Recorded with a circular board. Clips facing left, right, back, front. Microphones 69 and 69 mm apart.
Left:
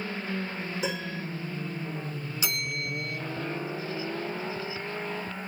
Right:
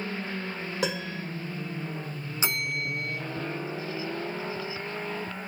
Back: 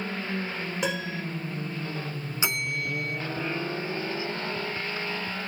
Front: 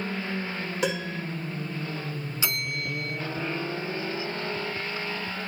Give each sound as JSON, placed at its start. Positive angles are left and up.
{"t": 0.8, "sound": "a piano", "azimuth_deg": -90, "distance_m": 7.0}
{"t": 2.4, "sound": "a bell", "azimuth_deg": -125, "distance_m": 0.7}